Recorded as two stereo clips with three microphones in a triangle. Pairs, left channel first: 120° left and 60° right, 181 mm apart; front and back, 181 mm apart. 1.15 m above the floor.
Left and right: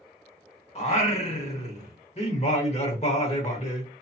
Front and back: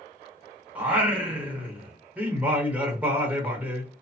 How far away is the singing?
About 0.9 m.